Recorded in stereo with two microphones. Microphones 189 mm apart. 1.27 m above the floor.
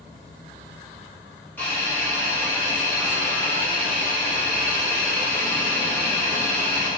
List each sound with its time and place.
1.6 s a hiss: 10° left (ahead or behind), 0.8 m